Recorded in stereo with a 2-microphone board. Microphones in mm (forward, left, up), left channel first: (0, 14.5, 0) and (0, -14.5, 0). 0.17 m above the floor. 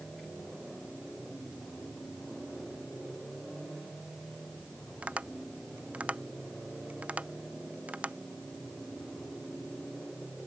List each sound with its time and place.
5.0 s tapping: 50° right (ahead or behind)